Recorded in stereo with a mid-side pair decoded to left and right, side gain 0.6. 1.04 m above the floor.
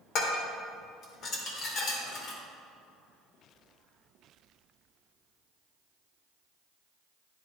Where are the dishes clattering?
55° left, 2 m.